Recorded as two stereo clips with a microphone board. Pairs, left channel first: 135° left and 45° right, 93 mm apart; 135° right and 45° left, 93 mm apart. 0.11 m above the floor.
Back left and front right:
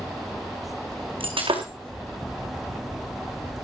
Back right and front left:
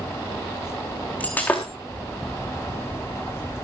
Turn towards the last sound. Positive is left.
turn(degrees=-65)